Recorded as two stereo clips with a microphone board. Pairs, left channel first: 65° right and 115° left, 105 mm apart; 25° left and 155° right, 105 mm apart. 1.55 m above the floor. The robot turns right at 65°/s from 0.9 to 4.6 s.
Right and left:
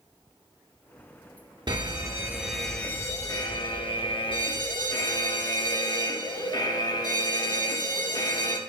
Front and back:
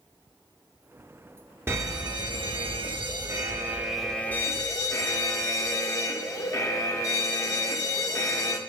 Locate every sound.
1.7 s a fire alarm: 140° left, 1.0 m; by 8.6 s 30° right, 1.0 m